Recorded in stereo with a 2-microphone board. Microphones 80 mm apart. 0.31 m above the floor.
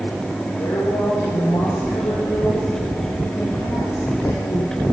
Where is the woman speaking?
65° left (ahead or behind), 8 m; by 4.8 s 80° left, 8 m.